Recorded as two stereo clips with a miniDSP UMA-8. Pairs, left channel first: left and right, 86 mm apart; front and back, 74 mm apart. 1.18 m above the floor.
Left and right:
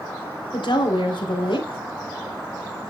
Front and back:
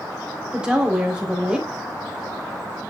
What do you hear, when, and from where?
0.5 s a woman speaking: 100° left, 3 m